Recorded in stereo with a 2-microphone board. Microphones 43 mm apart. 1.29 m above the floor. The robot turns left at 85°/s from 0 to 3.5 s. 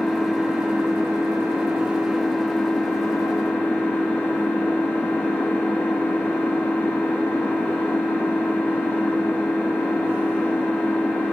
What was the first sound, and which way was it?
An engine running, 10° left.